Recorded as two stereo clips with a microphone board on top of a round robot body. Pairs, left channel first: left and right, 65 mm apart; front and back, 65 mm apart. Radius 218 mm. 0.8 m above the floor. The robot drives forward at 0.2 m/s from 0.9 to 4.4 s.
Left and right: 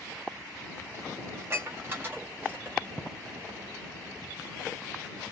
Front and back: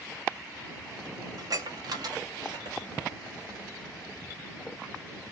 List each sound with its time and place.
1.4 s dishes clattering: 145° right, 0.8 m; by 2.8 s 155° right, 1.0 m